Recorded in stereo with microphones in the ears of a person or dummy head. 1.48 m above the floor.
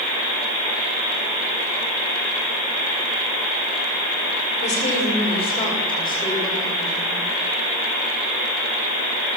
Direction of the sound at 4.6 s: 40° left (ahead or behind).